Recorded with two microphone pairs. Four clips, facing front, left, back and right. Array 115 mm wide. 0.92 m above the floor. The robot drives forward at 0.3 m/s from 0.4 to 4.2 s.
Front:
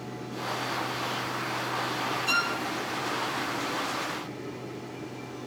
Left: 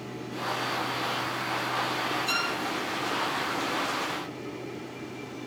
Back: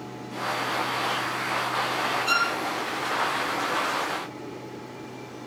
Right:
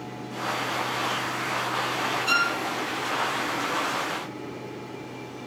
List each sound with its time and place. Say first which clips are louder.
2.3 s a violin: right 5 dB, back 3 dB; 150° right, 3.5 m